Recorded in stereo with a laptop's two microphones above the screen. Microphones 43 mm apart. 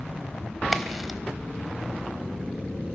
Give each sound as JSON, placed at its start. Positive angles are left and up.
{"t": 0.7, "sound": "a crack", "side_deg": 0, "distance_m": 1.2}